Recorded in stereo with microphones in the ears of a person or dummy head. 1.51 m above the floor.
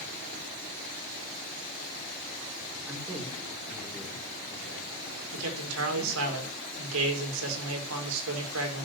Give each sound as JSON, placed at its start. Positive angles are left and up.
{"t": 2.9, "sound": "a man speaking", "side_deg": -15, "distance_m": 4.0}
{"t": 5.3, "sound": "a man speaking", "side_deg": -80, "distance_m": 4.5}